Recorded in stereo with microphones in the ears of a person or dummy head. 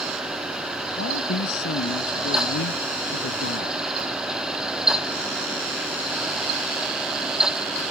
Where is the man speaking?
60° left (ahead or behind).